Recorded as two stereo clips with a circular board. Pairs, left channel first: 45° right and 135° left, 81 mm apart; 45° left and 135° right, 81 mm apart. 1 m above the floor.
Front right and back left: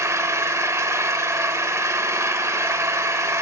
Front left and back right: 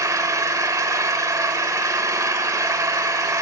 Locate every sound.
0.0 s an engine running: 175° right, 1.5 m